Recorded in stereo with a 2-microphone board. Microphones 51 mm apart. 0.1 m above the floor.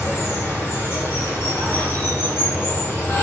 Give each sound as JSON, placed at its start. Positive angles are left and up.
{"t": 0.0, "sound": "running water", "side_deg": 50, "distance_m": 1.5}